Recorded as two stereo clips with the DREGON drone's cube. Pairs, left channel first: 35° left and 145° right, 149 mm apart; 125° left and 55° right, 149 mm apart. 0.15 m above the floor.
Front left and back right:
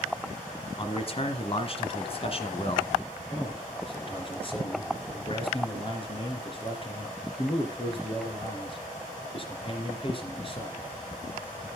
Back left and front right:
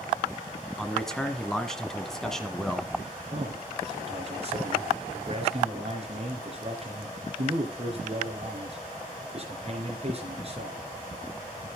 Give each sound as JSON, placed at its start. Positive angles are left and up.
{"t": 0.8, "sound": "a man speaking", "azimuth_deg": 40, "distance_m": 1.3}
{"t": 3.3, "sound": "a man speaking", "azimuth_deg": -15, "distance_m": 3.0}